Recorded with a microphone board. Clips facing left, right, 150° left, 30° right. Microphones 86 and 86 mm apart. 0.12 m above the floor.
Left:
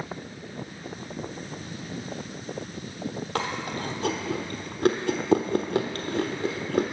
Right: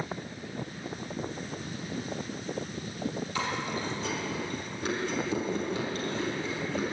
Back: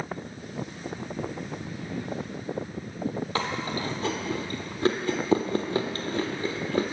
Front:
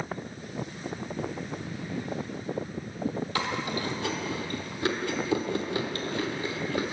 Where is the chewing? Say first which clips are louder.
Left 5 dB, back 1 dB; 100° left, 0.9 m.